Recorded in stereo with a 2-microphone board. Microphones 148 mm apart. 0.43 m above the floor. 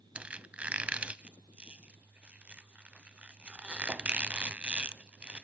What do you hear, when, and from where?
0.1 s a squeak: 10° right (ahead or behind), 0.6 m